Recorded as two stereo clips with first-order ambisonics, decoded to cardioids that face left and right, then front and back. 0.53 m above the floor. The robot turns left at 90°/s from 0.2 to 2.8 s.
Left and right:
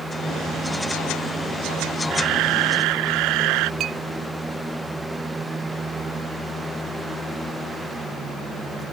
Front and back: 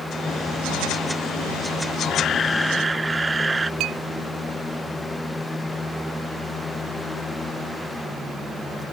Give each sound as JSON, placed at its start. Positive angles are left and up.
{"t": 2.1, "sound": "a camera shutter", "azimuth_deg": -35}
{"t": 3.8, "sound": "a clink", "azimuth_deg": -140}